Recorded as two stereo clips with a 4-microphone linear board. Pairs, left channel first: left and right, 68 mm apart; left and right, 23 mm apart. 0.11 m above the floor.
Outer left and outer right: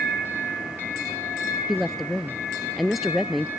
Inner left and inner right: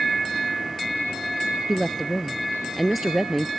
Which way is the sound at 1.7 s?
5° right (ahead or behind).